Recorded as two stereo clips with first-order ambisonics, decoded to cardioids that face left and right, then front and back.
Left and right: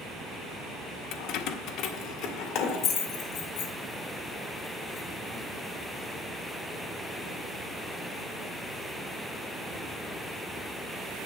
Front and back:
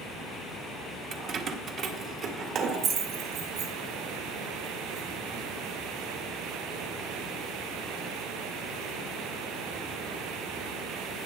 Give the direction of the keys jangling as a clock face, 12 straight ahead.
8 o'clock.